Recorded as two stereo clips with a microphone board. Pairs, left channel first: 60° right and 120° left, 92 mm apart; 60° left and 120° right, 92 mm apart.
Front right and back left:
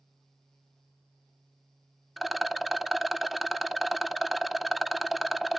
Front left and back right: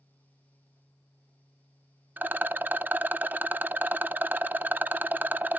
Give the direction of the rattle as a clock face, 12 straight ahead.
5 o'clock.